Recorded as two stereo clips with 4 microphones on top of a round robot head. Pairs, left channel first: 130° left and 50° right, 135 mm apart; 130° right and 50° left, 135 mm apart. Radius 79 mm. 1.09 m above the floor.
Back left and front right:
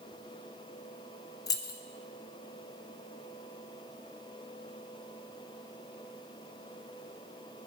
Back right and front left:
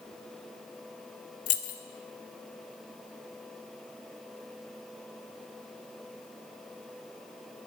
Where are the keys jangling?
165° right, 0.7 m.